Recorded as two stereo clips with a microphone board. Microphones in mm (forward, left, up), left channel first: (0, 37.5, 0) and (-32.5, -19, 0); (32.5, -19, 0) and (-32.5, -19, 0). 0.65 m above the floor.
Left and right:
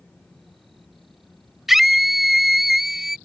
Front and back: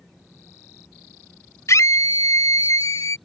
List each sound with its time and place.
1.7 s a scream: 35° right